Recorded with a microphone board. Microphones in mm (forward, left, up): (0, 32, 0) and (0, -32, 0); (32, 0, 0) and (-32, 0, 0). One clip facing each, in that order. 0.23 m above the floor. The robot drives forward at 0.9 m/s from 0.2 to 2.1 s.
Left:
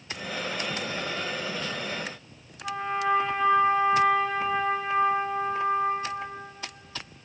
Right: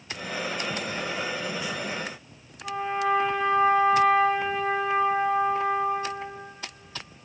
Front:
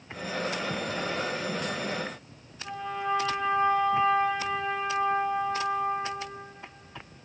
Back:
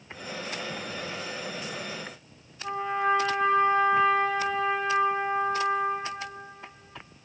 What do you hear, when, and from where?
2.6 s a trumpet: 175° right, 2 m